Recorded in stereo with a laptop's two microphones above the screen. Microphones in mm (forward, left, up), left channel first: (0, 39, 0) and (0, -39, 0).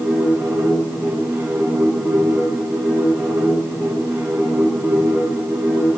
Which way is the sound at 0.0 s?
25° right (ahead or behind).